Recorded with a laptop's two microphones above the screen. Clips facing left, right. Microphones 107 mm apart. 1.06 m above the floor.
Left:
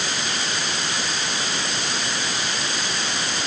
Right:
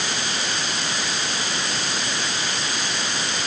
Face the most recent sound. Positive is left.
No sound to turn to.